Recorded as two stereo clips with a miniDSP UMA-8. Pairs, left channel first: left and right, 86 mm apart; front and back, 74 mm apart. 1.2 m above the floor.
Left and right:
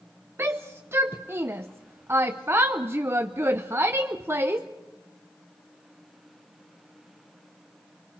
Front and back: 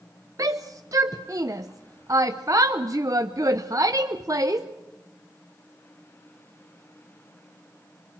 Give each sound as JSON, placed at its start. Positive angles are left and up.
{"t": 0.4, "sound": "a shout", "azimuth_deg": -145, "distance_m": 0.7}